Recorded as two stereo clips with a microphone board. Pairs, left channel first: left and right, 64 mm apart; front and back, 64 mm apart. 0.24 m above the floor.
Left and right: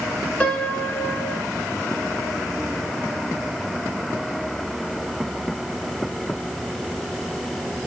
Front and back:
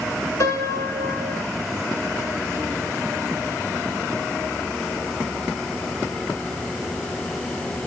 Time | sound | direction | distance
0.4 | a piano | 20° left | 1.1 m